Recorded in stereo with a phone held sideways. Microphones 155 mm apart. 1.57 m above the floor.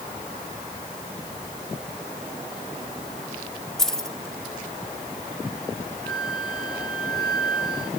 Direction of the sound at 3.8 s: 5° left (ahead or behind).